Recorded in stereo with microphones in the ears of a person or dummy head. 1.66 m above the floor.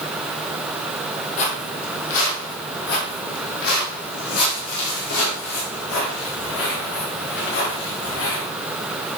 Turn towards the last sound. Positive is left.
turn(degrees=60)  # may be behind; listen again after turning